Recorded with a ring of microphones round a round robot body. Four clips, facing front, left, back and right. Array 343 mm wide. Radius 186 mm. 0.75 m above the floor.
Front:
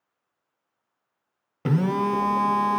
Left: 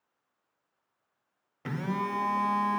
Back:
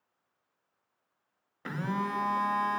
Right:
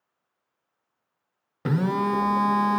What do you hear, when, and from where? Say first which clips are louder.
1.6 s a phone buzzing: right 8 dB, front 10 dB; 35° right, 1.6 m